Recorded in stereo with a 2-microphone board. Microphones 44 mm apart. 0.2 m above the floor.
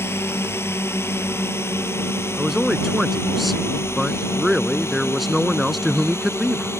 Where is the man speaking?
Centre (ahead or behind).